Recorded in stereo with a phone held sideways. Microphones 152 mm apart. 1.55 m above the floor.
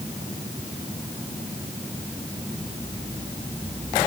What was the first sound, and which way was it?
Only background noise.